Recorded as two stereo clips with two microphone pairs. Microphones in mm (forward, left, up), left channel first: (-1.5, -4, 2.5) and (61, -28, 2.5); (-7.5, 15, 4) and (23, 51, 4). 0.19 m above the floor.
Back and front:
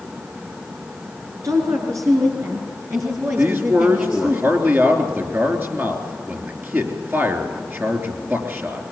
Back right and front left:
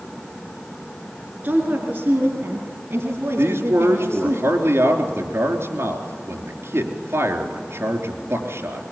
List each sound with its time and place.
1.4 s a woman speaking: straight ahead, 3.5 m; by 4.4 s 30° left, 4 m
3.4 s a man speaking: 35° left, 3.5 m